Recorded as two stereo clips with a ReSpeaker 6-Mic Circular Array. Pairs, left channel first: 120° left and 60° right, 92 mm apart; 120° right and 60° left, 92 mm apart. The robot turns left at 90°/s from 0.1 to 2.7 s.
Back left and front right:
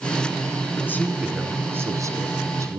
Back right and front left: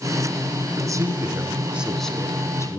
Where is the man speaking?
75° left, 1.6 m; by 2.8 s 95° right, 1.6 m.